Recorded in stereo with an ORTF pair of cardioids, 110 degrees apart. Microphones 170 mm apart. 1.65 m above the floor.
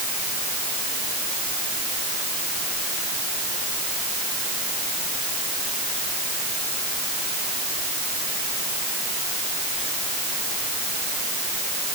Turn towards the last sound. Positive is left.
No sound to turn to.